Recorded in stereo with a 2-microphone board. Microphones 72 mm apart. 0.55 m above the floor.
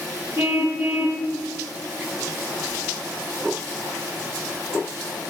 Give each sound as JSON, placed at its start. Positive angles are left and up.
{"t": 0.4, "sound": "a car horn", "side_deg": -25, "distance_m": 6.5}